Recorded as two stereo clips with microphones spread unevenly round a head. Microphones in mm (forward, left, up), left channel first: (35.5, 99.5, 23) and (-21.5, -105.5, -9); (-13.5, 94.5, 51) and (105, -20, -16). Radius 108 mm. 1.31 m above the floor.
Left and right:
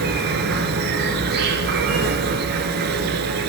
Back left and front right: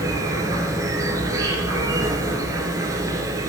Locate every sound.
0.0 s an insect: 140° right, 1.7 m